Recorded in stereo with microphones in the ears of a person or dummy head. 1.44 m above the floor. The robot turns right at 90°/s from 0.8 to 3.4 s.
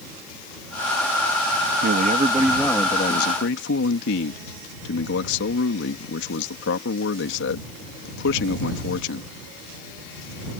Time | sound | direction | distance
1.8 | a man speaking | 65° right | ?